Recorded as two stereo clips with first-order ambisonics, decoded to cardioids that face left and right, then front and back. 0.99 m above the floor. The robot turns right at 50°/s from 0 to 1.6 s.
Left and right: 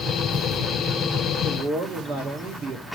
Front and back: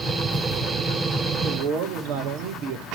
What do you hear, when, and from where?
1.4 s a man speaking: 155° right, 2 m; by 2.9 s 145° right, 2 m